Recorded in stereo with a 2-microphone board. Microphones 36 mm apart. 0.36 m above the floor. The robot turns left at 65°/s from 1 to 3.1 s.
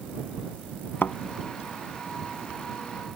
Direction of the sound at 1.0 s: 70° left (ahead or behind).